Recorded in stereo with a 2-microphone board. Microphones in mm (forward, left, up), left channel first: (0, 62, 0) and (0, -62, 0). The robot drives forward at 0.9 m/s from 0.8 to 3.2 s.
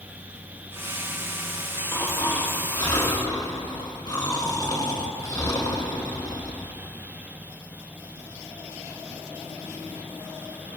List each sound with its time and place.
1.9 s snoring: 20° left (ahead or behind), 2 m; by 6.8 s 30° left (ahead or behind), 1.3 m